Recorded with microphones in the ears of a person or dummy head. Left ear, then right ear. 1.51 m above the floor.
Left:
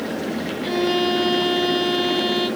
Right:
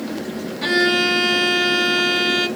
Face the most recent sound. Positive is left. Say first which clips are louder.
# right 5 dB
turn(degrees=-60)  # may be behind; listen again after turning